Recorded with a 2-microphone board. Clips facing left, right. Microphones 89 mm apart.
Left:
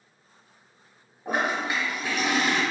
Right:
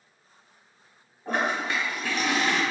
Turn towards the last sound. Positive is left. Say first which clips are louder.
# even
turn(degrees=15)  # may be behind; listen again after turning